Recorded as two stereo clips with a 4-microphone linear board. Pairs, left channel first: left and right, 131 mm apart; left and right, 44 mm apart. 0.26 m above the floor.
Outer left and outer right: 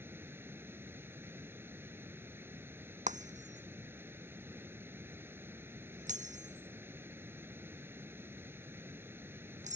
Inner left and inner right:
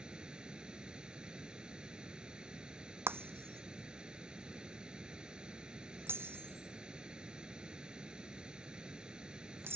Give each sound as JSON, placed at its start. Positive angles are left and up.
{"t": 0.0, "sound": "running water", "side_deg": -15}
{"t": 3.1, "sound": "breaking glass", "side_deg": -70}